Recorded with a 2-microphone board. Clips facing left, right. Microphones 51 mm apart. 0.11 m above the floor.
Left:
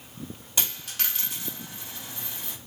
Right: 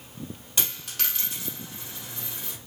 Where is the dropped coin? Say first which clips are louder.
Even; 5° left (ahead or behind), 2 m.